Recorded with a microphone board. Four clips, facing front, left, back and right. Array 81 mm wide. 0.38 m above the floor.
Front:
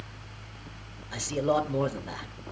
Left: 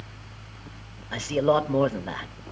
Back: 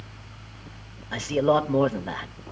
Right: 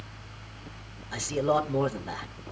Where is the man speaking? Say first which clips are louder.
Left 4 dB, back 5 dB; 140° left, 1.6 m.